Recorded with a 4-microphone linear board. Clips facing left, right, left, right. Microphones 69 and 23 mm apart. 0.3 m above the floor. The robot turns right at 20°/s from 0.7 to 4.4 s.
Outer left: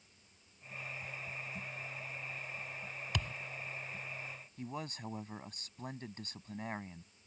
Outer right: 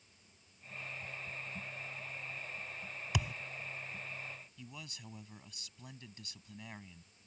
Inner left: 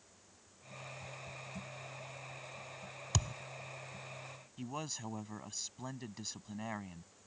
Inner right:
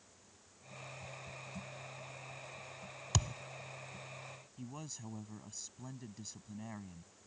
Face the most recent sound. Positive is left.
turn(degrees=40)  # may be behind; listen again after turning